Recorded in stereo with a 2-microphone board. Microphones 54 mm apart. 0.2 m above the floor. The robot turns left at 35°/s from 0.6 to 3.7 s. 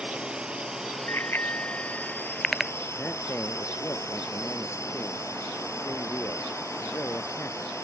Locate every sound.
0.0 s a drone: 20° right (ahead or behind); by 7.8 s 65° left (ahead or behind)
1.1 s a bicycle bell: 50° left (ahead or behind); by 2.7 s 5° right (ahead or behind)
3.0 s a man speaking: 35° left (ahead or behind); by 7.8 s 55° left (ahead or behind)